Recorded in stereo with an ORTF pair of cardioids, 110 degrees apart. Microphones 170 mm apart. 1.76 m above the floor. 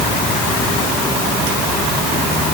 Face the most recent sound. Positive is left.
No sound to turn to.